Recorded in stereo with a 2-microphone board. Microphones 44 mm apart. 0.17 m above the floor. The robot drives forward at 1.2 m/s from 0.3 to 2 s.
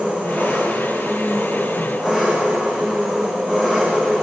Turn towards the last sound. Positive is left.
turn(degrees=-30)  # may be behind; listen again after turning